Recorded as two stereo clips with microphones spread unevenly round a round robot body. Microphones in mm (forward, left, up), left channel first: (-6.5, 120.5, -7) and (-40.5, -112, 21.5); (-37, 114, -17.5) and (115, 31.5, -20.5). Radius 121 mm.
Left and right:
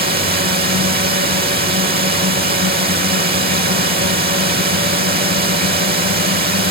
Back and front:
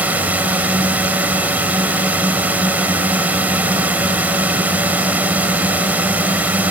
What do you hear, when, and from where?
0.0 s a drone: 105° right